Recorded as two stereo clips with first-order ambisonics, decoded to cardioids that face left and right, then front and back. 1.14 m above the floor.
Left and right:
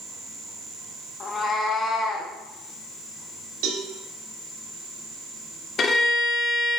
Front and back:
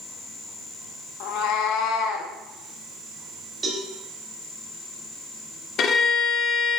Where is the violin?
40° left, 0.9 m.